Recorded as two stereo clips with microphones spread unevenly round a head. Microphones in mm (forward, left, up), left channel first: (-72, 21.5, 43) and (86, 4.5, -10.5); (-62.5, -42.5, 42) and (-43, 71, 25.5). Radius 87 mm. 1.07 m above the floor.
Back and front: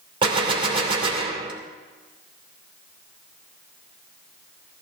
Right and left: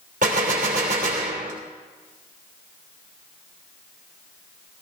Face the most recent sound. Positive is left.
turn(degrees=55)